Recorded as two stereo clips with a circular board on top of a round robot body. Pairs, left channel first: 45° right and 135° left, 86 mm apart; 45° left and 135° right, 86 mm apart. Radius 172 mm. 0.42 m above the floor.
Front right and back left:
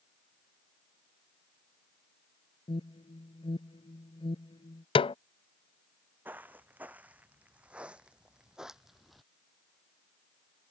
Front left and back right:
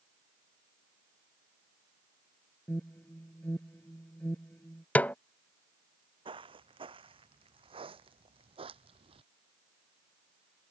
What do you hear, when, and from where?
2.7 s an alarm: 25° right
5.0 s a snare drum: 30° right
6.2 s footsteps: 155° right; by 9.2 s 135° right